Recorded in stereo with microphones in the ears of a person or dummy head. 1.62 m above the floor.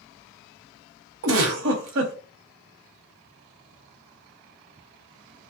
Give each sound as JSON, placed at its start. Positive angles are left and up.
{"t": 1.2, "sound": "a giggle", "side_deg": -70, "distance_m": 0.8}